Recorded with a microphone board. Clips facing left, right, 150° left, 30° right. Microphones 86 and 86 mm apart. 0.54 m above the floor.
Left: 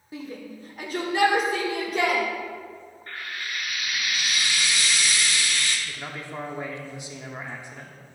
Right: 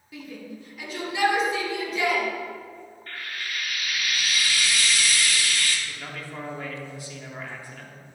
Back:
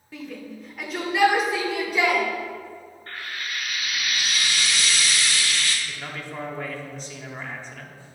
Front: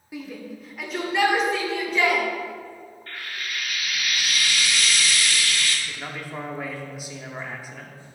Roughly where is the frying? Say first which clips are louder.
Left 1 dB, back 1 dB; behind left.